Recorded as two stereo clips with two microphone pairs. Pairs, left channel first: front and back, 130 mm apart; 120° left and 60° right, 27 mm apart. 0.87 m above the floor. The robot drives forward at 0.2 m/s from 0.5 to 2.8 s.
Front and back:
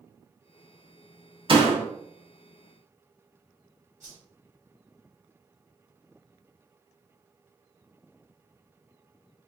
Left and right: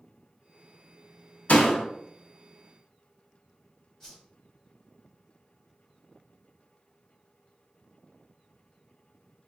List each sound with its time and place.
1.5 s a door slam: 135° left, 0.8 m; by 1.9 s 140° left, 0.8 m
4.0 s a whoosh: 165° right, 1.6 m